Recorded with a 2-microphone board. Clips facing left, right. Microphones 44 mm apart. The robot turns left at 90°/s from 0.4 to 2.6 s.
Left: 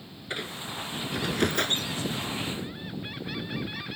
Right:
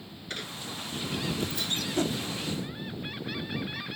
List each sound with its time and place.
0.3 s a squeak: 160° left; by 1.9 s 30° left
1.9 s a whoosh: 55° right (ahead or behind); by 2.2 s 65° right (ahead or behind)